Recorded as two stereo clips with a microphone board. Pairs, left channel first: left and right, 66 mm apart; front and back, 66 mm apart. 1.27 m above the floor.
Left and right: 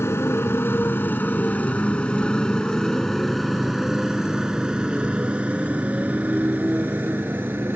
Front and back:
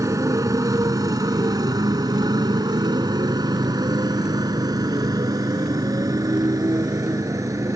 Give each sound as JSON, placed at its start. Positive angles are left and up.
{"t": 0.0, "sound": "a motorcycle", "azimuth_deg": 145}